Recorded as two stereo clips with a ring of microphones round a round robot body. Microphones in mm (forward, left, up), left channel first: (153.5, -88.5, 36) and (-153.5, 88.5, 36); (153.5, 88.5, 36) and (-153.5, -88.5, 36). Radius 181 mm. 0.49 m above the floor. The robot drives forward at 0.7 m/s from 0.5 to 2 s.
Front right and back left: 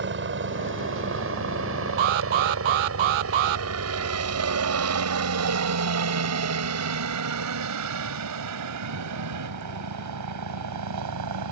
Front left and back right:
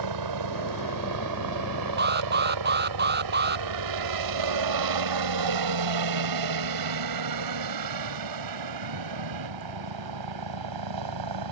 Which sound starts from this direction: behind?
A helicopter, at 0.0 s.